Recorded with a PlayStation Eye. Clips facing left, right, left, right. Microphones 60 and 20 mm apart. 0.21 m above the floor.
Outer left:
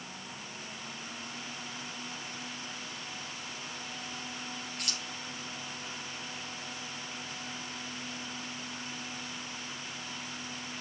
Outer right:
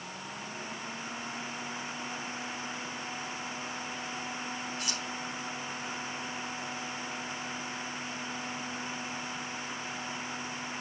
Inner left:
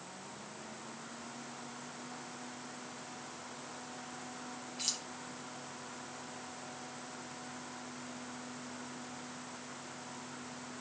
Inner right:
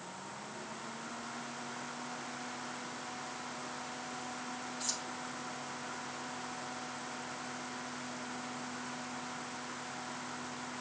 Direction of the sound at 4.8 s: 65° left (ahead or behind).